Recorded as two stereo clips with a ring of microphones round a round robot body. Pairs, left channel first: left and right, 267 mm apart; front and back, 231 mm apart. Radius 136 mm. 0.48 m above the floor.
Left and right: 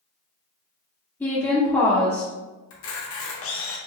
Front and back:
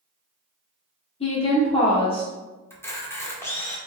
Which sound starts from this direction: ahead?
A woman speaking, at 1.2 s.